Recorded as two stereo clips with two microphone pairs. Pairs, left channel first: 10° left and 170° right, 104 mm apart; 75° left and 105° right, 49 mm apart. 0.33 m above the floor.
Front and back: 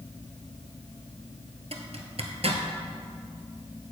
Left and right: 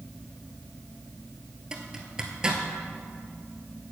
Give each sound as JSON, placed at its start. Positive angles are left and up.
{"t": 1.7, "sound": "a zipper", "azimuth_deg": 180, "distance_m": 1.0}